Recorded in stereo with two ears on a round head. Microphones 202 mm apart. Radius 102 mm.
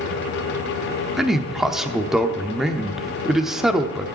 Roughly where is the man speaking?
Centre.